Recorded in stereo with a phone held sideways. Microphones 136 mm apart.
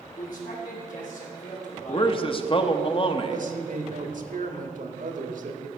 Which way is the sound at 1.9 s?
40° left (ahead or behind).